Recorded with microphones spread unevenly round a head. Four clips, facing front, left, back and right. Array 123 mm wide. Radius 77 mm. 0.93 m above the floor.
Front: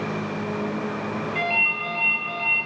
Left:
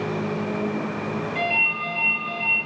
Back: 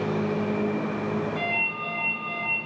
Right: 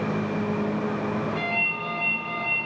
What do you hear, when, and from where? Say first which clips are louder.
1.4 s a ringtone: left 3 dB, front 3 dB; 20° left, 5 m